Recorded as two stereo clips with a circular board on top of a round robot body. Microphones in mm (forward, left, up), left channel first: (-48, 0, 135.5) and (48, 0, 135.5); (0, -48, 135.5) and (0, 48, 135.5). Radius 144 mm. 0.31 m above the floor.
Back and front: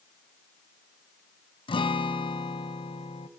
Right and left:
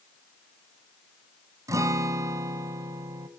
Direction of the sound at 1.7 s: 150° left.